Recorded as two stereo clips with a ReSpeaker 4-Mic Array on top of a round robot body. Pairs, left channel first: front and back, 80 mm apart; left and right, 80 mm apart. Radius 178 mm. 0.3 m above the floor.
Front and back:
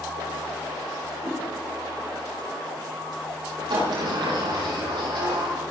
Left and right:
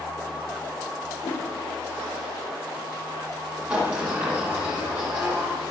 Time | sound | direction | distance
1.2 | a whoosh | 125° left | 7.5 m
3.7 | a sliding door | 165° right | 8 m